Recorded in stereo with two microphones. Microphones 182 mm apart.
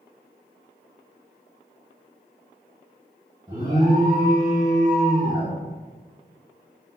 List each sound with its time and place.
3.5 s an alarm: 20° right (ahead or behind), 1.6 m